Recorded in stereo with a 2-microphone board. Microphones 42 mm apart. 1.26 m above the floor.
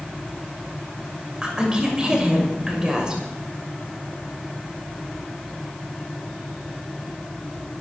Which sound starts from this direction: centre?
A woman speaking, at 1.4 s.